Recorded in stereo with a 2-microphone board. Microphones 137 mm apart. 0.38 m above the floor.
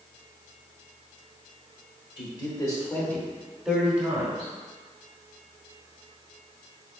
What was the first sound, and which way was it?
A man speaking, 40° left (ahead or behind).